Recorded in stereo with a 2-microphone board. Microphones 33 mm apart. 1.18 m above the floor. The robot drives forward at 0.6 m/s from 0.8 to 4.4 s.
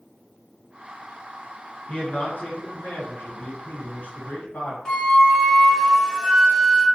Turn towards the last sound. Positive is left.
turn(degrees=15)  # may be behind; listen again after turning